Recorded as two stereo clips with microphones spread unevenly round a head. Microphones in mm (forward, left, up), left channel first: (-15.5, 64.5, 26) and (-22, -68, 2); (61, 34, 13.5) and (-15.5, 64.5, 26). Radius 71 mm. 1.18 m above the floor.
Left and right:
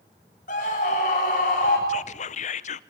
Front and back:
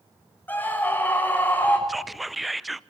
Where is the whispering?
60° left, 0.7 m.